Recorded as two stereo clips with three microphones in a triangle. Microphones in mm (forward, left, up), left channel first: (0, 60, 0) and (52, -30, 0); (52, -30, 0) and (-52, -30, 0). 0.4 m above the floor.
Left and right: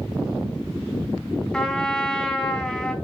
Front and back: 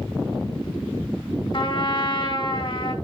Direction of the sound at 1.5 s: 40° left.